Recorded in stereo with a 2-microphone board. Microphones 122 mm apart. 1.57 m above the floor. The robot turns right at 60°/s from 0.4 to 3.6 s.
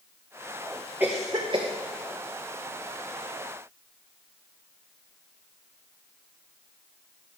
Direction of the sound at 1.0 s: 15° right (ahead or behind).